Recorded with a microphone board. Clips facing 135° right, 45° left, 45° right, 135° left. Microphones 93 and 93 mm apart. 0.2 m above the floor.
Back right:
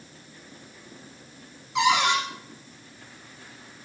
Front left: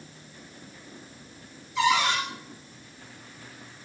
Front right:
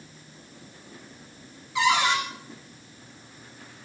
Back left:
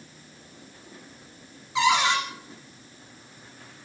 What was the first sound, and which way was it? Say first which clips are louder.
A cupboard door: back right 2 dB, back left 1 dB; 155° right.